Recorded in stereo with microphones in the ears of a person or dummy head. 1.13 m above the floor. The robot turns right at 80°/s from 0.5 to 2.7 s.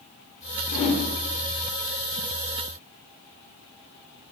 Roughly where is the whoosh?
Left.